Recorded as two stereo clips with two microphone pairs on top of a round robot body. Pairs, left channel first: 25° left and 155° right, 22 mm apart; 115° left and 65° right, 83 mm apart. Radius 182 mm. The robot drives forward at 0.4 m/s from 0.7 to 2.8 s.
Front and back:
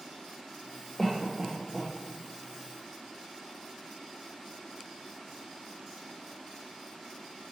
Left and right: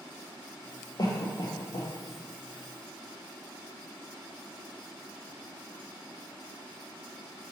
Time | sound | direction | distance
1.0 | a cough | 85° left | 0.7 m